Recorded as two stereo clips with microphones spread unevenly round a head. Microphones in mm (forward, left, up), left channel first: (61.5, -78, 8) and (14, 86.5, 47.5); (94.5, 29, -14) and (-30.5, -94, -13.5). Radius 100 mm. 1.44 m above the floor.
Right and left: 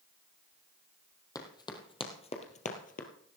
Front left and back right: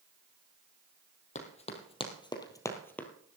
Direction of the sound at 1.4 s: Straight ahead.